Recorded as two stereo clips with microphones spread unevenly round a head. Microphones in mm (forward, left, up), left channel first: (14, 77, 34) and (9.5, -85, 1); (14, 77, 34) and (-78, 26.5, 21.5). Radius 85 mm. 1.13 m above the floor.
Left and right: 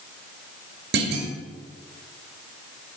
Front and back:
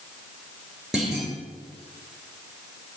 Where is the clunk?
65° right, 3 m.